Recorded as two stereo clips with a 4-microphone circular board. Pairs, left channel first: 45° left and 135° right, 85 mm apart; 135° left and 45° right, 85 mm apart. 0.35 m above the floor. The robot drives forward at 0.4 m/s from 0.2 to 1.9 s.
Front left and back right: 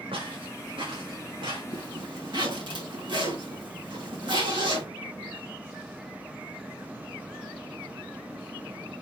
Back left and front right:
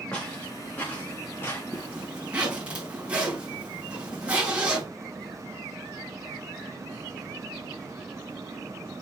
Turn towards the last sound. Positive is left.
turn(degrees=-120)